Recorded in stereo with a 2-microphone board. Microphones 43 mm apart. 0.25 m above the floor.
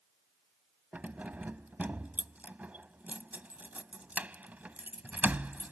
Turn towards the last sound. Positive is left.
turn(degrees=-40)  # may be behind; listen again after turning